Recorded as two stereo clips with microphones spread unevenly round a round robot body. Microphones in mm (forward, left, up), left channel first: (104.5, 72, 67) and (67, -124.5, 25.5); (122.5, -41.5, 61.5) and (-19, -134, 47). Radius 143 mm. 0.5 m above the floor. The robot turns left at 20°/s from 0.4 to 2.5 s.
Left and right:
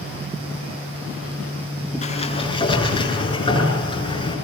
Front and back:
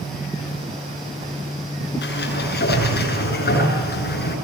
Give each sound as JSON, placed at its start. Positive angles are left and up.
{"t": 2.0, "sound": "a sliding door", "azimuth_deg": 25, "distance_m": 8.0}